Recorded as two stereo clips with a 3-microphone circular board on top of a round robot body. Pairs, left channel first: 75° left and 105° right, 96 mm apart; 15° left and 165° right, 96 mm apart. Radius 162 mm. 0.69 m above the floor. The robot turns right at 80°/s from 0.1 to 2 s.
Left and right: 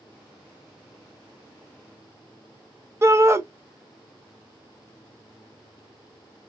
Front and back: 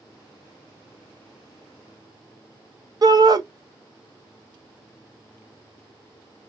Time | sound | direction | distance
3.0 | a shout | 150° right | 0.8 m